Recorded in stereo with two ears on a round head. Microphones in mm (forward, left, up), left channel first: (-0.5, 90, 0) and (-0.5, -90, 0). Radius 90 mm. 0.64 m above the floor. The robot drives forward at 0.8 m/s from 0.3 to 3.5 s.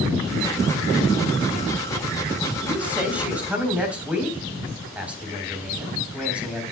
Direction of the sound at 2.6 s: 10° right (ahead or behind).